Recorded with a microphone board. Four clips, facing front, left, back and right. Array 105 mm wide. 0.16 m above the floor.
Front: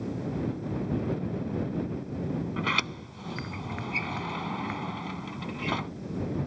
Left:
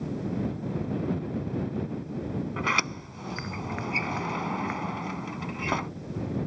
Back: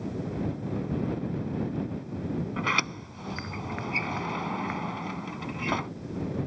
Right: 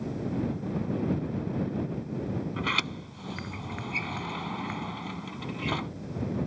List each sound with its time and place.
2.6 s a sliding door: 115° left